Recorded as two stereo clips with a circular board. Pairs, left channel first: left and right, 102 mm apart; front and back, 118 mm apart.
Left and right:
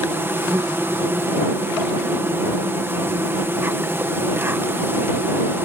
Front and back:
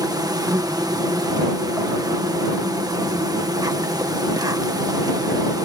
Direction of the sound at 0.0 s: 145° right.